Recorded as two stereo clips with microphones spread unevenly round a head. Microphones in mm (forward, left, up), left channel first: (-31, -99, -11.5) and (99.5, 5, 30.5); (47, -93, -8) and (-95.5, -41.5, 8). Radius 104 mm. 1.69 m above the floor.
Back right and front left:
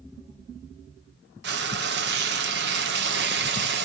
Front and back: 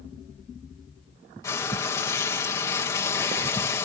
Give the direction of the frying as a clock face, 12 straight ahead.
10 o'clock.